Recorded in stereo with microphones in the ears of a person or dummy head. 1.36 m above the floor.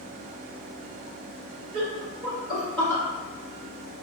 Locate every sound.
1.7 s laughter: 30° right (ahead or behind), 0.9 m; by 3.0 s 25° left (ahead or behind), 0.8 m